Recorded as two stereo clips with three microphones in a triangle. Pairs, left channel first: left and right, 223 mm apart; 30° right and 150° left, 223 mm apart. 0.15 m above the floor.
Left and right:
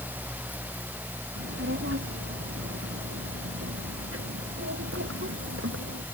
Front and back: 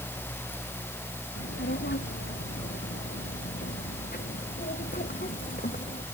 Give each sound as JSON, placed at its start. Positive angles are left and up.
{"t": 1.4, "sound": "a child speaking", "azimuth_deg": -65}